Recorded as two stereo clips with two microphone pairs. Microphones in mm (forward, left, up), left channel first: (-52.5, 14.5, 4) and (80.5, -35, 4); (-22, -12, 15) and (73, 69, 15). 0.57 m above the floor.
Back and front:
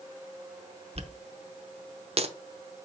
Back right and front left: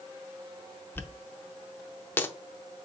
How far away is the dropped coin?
About 0.5 m.